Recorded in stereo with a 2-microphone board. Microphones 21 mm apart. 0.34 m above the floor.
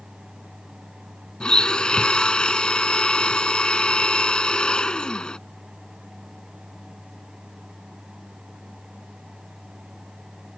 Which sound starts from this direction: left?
A blender, at 1.4 s.